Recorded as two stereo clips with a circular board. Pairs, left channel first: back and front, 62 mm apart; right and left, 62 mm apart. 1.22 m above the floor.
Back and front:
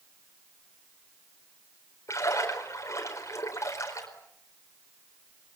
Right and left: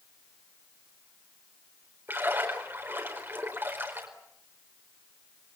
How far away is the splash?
About 4.5 m.